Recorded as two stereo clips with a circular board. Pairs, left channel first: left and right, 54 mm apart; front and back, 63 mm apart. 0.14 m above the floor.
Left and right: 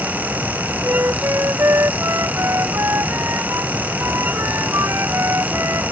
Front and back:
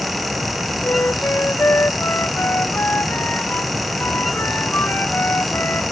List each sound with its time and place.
0.8 s a flute: 55° right